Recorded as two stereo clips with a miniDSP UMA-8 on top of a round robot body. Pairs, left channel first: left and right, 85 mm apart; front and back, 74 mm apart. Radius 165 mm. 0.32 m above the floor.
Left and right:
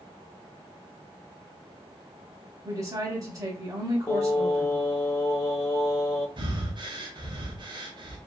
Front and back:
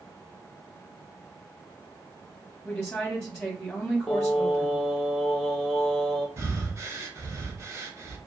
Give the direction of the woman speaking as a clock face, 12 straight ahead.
2 o'clock.